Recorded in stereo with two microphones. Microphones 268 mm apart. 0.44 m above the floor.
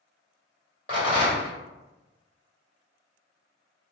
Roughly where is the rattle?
Right.